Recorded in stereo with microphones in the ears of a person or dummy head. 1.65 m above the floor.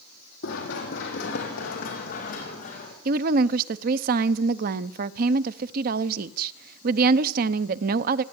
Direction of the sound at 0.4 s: 60° left (ahead or behind).